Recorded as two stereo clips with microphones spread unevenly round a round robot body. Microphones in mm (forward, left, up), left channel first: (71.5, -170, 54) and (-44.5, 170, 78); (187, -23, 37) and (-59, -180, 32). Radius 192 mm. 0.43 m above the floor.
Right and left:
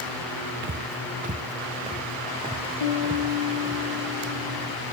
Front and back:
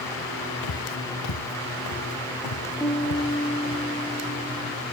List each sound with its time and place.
0.6 s footsteps: 50° left, 0.7 m; by 3.8 s 30° left, 2.5 m
2.8 s a piano: 50° right, 4 m